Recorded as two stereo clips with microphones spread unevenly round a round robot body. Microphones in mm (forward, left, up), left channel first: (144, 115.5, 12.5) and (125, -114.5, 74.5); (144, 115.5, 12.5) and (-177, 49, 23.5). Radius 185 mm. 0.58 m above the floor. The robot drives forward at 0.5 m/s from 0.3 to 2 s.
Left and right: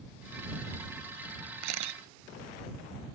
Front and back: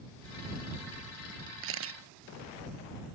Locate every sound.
1.6 s a camera shutter: 110° right